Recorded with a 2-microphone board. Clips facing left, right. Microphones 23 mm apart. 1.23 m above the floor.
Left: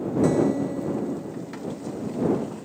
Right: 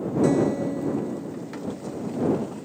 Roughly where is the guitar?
Centre.